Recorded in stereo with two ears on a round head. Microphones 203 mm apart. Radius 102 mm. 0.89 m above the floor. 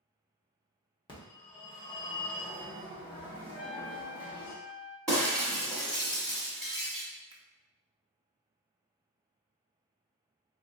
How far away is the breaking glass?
About 1.1 m.